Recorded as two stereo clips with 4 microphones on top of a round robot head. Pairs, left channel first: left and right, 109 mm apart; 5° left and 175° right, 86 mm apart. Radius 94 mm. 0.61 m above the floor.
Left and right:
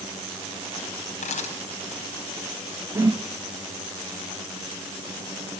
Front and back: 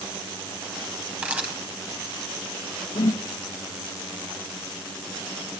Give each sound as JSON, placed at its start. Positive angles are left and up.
{"t": 1.2, "sound": "a camera shutter", "azimuth_deg": 110, "distance_m": 4.0}
{"t": 3.0, "sound": "a whoosh", "azimuth_deg": -30, "distance_m": 0.8}